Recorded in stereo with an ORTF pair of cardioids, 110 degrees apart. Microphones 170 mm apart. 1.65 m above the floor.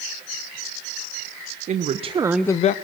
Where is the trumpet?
I don't hear a trumpet.